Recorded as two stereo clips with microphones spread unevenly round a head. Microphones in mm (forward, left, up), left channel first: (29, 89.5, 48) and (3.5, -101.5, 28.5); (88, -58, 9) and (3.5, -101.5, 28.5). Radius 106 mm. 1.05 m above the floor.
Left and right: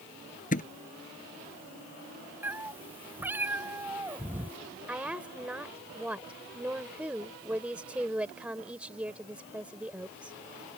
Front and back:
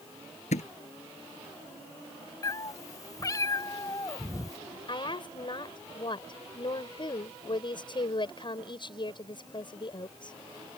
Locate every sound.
0.5 s a thud: 30° left
2.4 s a cat meowing: 15° right
4.9 s a woman speaking: 15° right